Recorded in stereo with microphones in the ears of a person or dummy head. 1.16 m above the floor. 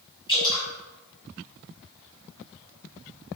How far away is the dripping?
About 1.5 m.